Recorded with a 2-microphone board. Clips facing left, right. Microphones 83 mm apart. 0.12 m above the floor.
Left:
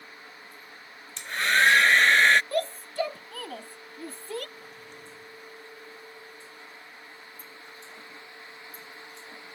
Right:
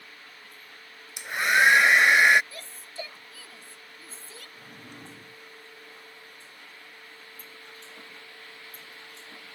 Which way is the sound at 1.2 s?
15° right (ahead or behind).